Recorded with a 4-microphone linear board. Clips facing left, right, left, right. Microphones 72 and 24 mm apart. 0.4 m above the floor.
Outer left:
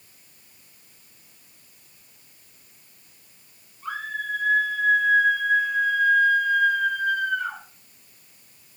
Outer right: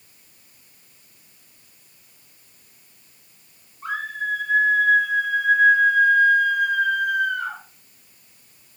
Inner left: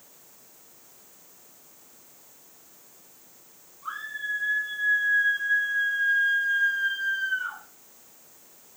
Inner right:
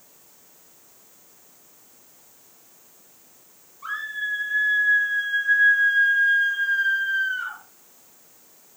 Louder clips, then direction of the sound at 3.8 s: Outer right 3 dB, inner right 4 dB; 65° right (ahead or behind).